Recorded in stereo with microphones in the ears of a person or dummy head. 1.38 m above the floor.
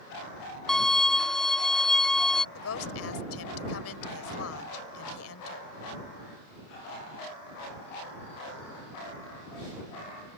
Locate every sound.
0.7 s a violin: 5° left (ahead or behind)
2.5 s a woman speaking: 85° left